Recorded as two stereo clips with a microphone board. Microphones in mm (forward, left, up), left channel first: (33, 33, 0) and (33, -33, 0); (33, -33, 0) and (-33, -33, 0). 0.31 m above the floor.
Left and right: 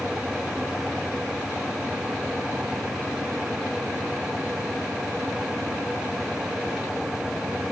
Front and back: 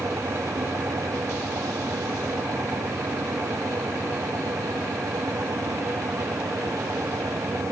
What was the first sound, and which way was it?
Only background noise.